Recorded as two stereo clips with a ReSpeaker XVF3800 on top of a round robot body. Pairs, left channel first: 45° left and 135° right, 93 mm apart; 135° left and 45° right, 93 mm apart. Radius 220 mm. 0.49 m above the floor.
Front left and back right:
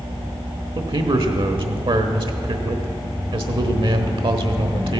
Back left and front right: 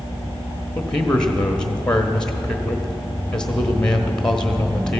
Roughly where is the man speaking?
Behind right.